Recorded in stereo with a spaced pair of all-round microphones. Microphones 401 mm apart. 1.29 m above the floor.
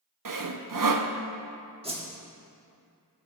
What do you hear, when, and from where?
0.2 s sawing: 55° right (ahead or behind), 0.6 m
1.8 s a whoosh: 15° right (ahead or behind), 1.4 m